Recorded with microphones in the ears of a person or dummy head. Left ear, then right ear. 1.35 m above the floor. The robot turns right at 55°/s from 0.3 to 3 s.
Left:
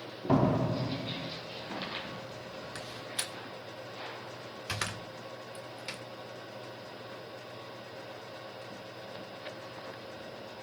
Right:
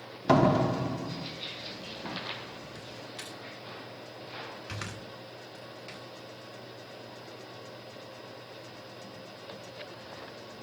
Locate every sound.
0.3 s a door slam: 65° right, 1.3 m; by 1.3 s 10° right, 1.3 m
2.8 s a door slam: 20° left (ahead or behind), 0.5 m; by 6.0 s 15° left (ahead or behind), 0.5 m